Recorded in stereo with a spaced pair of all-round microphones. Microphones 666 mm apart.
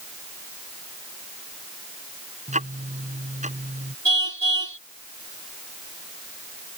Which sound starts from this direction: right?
A car horn, at 4.0 s.